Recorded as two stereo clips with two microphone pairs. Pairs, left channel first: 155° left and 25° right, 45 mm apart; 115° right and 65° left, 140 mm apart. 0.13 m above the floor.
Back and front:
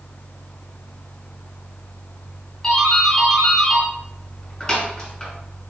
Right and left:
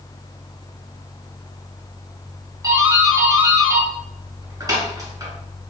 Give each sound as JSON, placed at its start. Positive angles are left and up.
{"t": 2.6, "sound": "a doorbell", "azimuth_deg": 95, "distance_m": 1.7}